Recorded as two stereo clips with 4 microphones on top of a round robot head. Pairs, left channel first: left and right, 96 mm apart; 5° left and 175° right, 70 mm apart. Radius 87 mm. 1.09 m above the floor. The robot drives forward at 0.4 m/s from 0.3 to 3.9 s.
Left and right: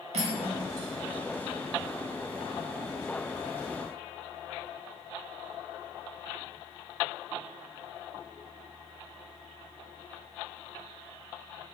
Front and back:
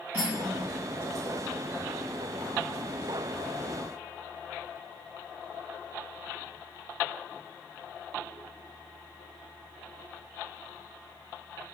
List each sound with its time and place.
0.1 s cutlery clinking: 105° right, 0.8 m; by 0.6 s 115° right, 0.8 m